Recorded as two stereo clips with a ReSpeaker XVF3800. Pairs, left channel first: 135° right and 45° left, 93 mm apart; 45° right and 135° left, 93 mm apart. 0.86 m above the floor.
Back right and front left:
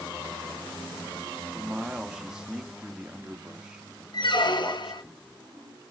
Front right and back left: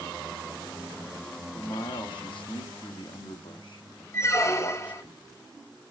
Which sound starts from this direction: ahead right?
A man speaking, at 1.5 s.